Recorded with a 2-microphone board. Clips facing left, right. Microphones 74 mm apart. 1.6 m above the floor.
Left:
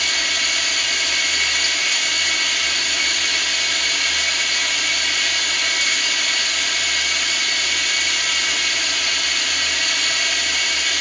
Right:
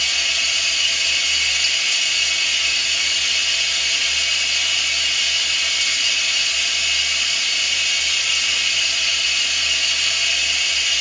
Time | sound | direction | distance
0.0 | running water | 55° left (ahead or behind) | 1.8 m